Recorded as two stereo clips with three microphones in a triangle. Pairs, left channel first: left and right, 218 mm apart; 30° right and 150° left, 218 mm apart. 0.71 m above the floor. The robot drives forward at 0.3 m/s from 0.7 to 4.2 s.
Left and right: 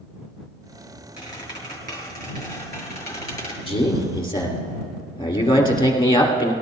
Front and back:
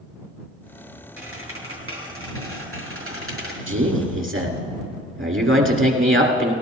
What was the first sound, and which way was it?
A squeak, 160° left.